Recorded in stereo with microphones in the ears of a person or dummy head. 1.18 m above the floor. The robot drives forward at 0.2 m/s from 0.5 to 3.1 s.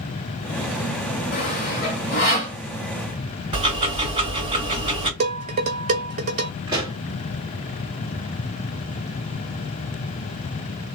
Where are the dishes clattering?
40° right (ahead or behind), 0.9 m.